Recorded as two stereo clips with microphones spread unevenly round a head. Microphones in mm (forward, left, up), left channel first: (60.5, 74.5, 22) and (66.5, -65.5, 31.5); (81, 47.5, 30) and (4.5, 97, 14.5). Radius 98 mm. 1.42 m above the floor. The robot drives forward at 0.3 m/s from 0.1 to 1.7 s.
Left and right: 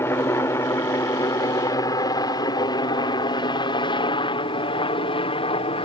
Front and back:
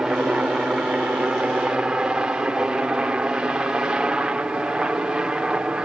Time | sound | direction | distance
0.0 | a helicopter | 95° left | ?